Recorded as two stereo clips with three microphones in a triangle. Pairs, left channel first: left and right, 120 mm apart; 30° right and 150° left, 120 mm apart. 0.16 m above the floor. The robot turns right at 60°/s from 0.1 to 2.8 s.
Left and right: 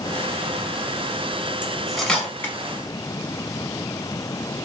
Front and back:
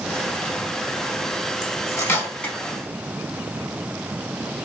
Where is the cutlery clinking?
15° right, 0.8 m; by 2.5 s 40° left, 0.8 m.